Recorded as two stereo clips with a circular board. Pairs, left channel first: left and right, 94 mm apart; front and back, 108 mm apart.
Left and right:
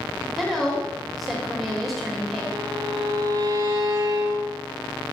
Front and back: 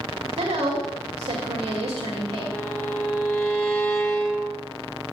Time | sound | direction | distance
0.4 | a woman speaking | straight behind | 2.5 m
2.5 | a violin | 60° right | 2 m